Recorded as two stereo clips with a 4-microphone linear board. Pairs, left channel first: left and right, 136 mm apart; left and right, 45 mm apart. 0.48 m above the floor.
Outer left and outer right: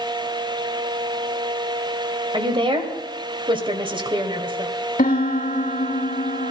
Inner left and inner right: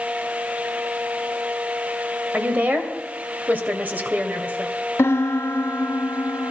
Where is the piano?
75° left (ahead or behind), 1.1 m.